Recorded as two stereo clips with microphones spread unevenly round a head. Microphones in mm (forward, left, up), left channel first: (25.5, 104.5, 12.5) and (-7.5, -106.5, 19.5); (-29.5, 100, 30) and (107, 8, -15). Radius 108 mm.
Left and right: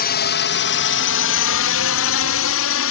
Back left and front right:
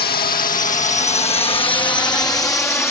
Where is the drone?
120° left; by 2.9 s 65° left.